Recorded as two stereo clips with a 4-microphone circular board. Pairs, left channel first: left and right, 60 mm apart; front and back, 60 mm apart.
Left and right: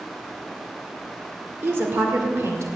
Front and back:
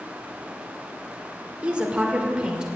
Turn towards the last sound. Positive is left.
turn(degrees=-105)